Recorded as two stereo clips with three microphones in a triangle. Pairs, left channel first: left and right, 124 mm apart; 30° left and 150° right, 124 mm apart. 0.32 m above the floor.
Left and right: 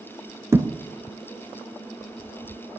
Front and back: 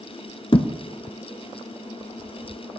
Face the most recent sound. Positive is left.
turn(degrees=-20)